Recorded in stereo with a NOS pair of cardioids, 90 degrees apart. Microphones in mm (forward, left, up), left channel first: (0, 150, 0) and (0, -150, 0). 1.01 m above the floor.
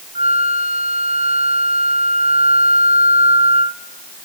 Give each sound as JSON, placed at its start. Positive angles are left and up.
{"t": 0.1, "sound": "a flute", "azimuth_deg": -20, "distance_m": 0.8}